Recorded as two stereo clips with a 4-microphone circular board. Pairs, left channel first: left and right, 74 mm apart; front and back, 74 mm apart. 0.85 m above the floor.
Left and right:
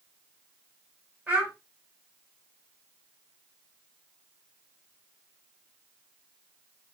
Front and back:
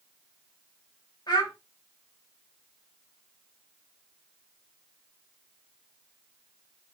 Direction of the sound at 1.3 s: 25° right.